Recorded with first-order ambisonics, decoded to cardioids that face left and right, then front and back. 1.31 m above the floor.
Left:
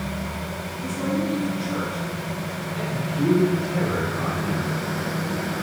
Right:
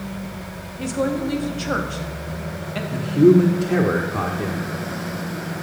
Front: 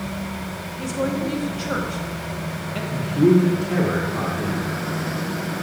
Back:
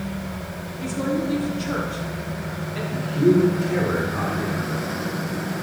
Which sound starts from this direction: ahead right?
A woman speaking, at 0.8 s.